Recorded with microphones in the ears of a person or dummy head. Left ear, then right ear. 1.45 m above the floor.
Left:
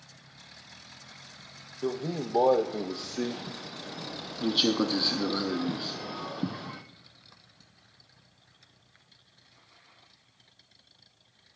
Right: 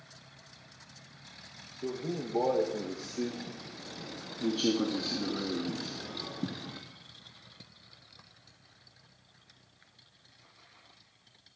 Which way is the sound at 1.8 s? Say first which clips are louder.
Left 4 dB; 40° left (ahead or behind).